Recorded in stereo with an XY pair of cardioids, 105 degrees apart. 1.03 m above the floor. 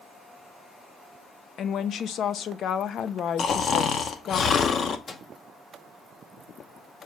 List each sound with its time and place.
1.6 s a woman speaking: 60° left, 0.6 m
3.4 s snoring: 55° left, 0.8 m
5.1 s a microwave: 35° left, 1.0 m